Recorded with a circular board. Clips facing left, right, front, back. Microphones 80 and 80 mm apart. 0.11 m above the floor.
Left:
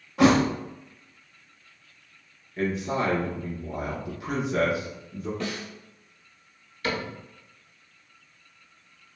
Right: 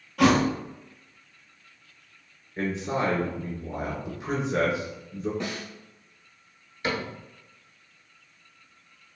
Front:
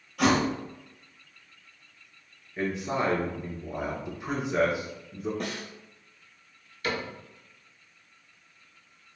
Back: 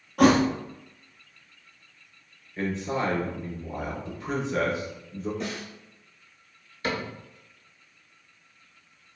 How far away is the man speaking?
About 1.2 m.